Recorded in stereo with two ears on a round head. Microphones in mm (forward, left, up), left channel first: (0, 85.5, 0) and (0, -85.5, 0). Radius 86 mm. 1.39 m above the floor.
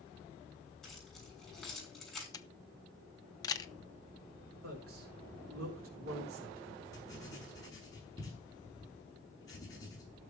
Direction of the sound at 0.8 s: 5° left (ahead or behind).